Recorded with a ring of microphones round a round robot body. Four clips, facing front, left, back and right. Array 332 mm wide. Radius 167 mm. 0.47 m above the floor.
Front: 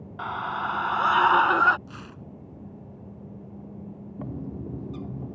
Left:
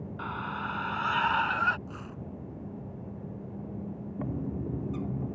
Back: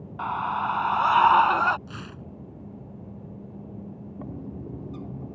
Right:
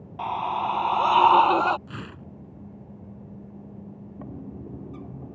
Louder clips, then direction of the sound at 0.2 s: Right 10 dB, back 3 dB; 60° right.